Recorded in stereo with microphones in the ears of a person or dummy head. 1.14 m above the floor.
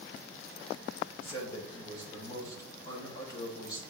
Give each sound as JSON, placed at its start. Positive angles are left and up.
{"t": 1.2, "sound": "a man speaking", "side_deg": 25, "distance_m": 4.5}